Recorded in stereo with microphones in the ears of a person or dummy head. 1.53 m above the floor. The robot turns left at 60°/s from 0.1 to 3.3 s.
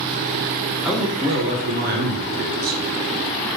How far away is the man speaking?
About 0.9 m.